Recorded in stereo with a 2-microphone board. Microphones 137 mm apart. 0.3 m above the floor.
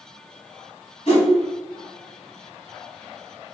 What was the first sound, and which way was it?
A whoosh, 60° left (ahead or behind).